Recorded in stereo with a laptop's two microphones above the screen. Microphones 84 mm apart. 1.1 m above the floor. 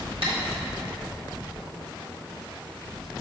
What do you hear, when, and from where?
0.2 s tapping: 80° right, 2 m